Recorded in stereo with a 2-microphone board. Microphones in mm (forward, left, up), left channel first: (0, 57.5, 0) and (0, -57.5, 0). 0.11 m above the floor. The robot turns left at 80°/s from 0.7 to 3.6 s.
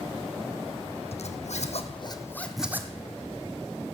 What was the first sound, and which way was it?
A zipper, 60° left (ahead or behind).